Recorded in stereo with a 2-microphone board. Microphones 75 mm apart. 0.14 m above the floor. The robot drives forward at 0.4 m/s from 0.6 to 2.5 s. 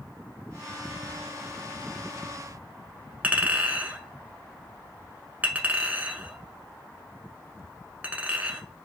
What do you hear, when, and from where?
3.2 s a clink: 25° right (ahead or behind), 0.8 m